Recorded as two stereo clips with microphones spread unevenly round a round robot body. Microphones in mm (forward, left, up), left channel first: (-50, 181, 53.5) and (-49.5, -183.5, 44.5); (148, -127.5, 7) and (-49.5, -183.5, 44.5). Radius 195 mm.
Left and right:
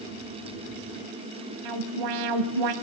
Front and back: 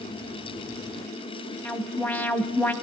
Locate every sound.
1.6 s an alarm: 65° right, 2 m